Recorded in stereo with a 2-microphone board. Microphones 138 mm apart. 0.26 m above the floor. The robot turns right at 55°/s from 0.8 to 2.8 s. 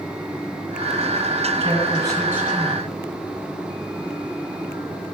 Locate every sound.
1.6 s a man speaking: 60° right, 1.9 m; by 3.0 s 5° left, 1.9 m